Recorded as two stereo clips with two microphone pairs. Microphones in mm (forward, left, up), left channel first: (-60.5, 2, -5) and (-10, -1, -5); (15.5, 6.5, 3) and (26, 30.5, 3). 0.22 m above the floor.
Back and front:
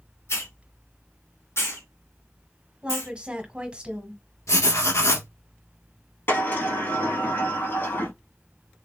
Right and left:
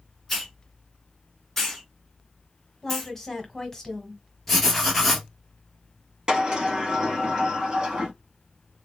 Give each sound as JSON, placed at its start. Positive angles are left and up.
{"t": 0.3, "sound": "a hiss", "azimuth_deg": 170, "distance_m": 1.6}
{"t": 2.8, "sound": "a woman speaking", "azimuth_deg": -55, "distance_m": 1.2}
{"t": 4.5, "sound": "writing", "azimuth_deg": 160, "distance_m": 1.5}
{"t": 6.3, "sound": "a sliding door", "azimuth_deg": 135, "distance_m": 2.0}